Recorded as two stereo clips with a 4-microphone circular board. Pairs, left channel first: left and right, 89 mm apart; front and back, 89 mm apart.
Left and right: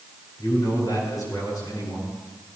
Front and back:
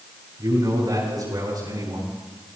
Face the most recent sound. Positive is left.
turn(degrees=135)